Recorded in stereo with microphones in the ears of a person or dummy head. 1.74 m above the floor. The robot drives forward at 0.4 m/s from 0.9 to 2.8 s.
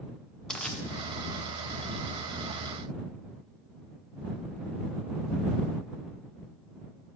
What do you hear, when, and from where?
0.5 s crushing: 5° left (ahead or behind), 0.6 m